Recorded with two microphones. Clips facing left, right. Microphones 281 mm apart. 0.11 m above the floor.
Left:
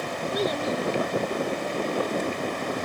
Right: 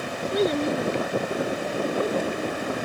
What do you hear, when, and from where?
0.3 s a child speaking: 25° right (ahead or behind); by 2.8 s 60° right (ahead or behind)